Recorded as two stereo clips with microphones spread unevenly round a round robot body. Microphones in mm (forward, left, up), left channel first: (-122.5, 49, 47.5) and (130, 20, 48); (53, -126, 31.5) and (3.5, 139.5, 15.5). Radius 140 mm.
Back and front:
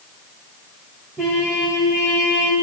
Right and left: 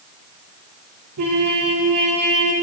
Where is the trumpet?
80° left, 7 m.